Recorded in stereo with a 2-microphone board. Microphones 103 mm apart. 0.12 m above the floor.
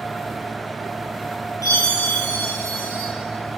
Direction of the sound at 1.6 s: 35° left (ahead or behind).